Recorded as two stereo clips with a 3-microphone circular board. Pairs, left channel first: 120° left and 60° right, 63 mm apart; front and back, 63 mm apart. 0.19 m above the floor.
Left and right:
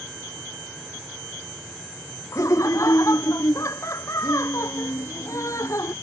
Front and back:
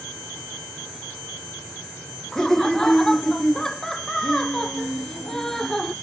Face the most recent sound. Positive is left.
turn(degrees=85)